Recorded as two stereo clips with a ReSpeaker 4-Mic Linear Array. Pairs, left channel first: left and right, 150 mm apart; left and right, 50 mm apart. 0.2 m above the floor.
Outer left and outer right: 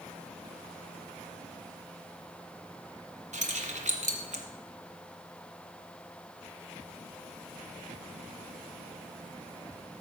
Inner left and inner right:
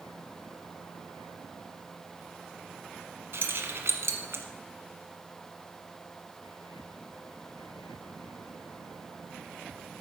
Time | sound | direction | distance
3.3 | keys jangling | 55° right (ahead or behind) | 1.2 m